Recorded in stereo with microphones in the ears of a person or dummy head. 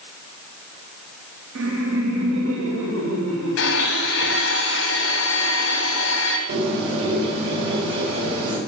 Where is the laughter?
75° right (ahead or behind), 1.1 m.